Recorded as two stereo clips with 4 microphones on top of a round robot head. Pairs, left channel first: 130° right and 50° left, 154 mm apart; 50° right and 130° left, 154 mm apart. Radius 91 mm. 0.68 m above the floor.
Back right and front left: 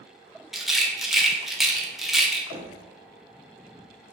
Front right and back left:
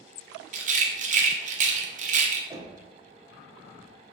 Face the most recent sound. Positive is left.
turn(degrees=95)